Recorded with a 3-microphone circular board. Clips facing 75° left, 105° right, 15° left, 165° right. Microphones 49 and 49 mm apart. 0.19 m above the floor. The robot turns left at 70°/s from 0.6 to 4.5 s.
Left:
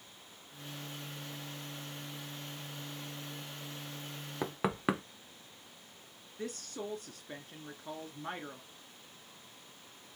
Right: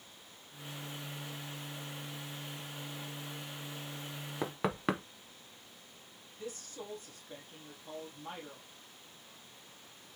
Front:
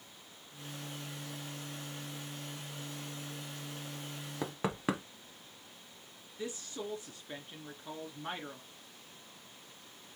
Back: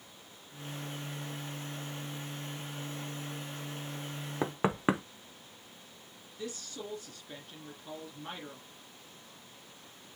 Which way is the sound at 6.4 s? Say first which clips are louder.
Left 4 dB, front 1 dB; 80° left.